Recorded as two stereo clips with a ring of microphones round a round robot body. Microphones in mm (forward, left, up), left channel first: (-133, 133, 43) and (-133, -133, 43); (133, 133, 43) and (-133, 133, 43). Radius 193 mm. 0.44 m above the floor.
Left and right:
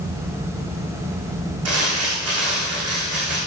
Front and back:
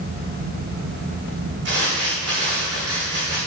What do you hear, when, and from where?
1.6 s crumpling: 120° right, 7.5 m